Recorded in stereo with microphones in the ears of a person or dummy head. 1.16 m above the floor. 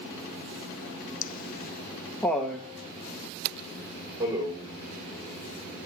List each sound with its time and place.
1.2 s laughter: 45° left (ahead or behind), 1.0 m; by 4.7 s 20° right (ahead or behind), 4.5 m